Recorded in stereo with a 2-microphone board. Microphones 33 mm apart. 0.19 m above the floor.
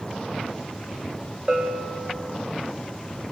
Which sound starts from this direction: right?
A bell, at 1.5 s.